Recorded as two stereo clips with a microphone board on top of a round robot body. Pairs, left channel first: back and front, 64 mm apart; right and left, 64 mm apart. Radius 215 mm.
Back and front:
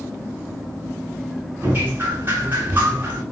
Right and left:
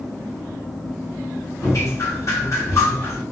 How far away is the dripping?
About 1.9 m.